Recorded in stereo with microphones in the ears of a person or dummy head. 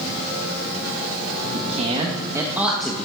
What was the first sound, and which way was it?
A man speaking, 45° right (ahead or behind).